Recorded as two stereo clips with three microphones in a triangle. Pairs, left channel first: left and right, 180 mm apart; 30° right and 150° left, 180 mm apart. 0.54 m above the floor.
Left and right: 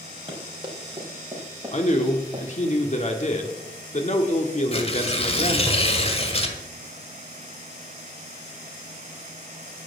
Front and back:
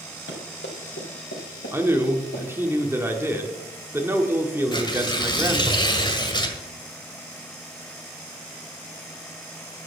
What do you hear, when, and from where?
0.3 s running footsteps: 25° right, 6 m; by 2.7 s 10° right, 5.5 m
1.7 s a man speaking: 80° left, 1.5 m
4.7 s tearing paper: 35° left, 1.6 m